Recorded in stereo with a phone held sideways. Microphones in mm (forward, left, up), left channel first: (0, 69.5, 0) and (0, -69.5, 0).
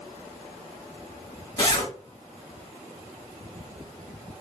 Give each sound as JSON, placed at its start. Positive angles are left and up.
{"t": 1.6, "sound": "a zipper", "side_deg": 30, "distance_m": 1.5}